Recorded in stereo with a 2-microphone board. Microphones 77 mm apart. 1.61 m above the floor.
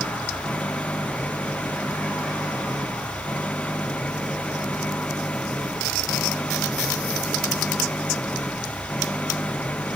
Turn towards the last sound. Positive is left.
turn(degrees=15)  # may be behind; listen again after turning